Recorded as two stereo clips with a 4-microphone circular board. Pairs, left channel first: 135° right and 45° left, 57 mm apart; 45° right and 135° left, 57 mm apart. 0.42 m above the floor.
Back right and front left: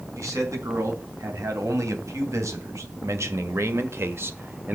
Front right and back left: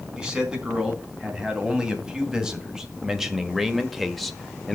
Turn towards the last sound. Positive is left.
turn(degrees=30)